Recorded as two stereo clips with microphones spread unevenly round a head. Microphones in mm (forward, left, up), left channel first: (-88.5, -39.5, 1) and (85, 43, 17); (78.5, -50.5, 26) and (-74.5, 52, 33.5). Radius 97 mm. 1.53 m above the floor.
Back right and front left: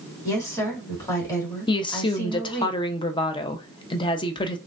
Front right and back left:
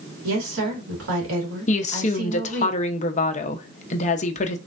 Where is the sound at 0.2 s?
130° left, 2.5 m.